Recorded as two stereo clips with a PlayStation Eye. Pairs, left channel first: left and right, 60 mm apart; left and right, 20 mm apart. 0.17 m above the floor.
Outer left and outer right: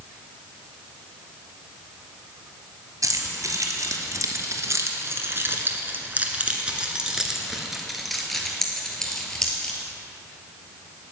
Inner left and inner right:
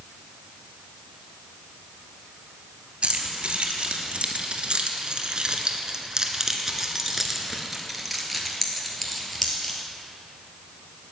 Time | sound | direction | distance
3.0 | keys jangling | 65° right (ahead or behind) | 2 m